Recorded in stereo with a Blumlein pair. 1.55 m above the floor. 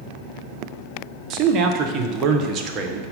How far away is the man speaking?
About 1.0 m.